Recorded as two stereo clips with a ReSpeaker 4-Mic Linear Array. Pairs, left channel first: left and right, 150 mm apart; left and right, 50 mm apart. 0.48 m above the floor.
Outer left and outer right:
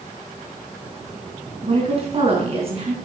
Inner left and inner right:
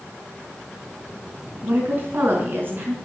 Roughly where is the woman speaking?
Right.